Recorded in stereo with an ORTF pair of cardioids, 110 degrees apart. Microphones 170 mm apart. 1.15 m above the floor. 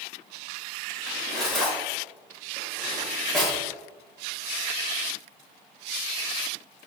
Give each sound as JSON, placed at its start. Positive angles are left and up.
{"t": 1.1, "sound": "cutlery clinking", "azimuth_deg": 0, "distance_m": 3.0}